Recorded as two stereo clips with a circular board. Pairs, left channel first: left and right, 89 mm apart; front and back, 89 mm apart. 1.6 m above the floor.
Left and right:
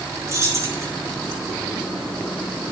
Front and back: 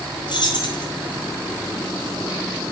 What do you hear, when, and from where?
0.3 s keys jangling: 35° right, 5 m